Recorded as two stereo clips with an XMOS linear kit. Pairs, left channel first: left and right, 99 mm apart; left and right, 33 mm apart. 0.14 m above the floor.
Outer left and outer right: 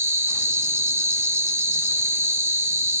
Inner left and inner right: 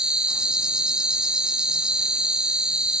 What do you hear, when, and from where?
0.0 s an insect: 25° right (ahead or behind), 0.9 m